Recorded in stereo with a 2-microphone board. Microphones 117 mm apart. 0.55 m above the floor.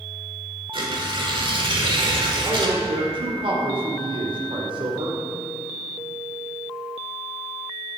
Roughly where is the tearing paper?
Right.